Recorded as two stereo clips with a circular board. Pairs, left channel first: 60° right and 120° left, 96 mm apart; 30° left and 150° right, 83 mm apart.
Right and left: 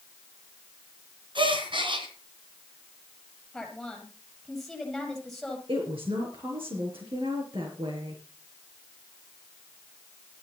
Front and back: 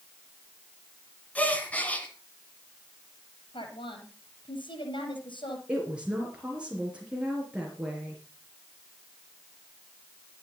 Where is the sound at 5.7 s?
135° left, 4 m.